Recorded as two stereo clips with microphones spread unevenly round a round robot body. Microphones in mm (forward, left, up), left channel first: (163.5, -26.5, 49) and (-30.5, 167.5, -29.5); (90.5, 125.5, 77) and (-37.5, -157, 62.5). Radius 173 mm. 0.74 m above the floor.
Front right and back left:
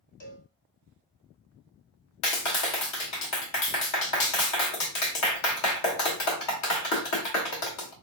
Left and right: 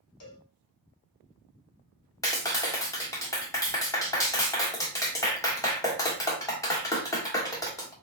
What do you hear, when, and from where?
0.2 s a cowbell: 20° left, 1.2 m
2.2 s a clap: 15° right, 1.2 m